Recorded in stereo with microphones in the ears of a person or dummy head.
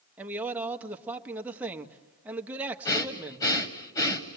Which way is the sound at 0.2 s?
15° right (ahead or behind).